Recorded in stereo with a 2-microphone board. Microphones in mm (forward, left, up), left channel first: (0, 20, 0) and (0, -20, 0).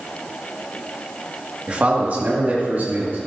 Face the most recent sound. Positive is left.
turn(degrees=-55)  # may be behind; listen again after turning